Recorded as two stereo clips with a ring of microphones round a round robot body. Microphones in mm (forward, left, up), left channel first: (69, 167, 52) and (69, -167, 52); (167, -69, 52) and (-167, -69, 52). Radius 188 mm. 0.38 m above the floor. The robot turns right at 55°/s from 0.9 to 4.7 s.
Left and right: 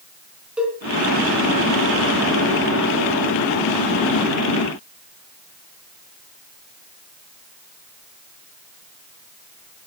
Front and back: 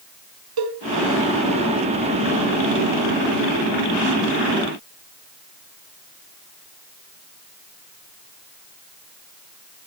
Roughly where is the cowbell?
Behind.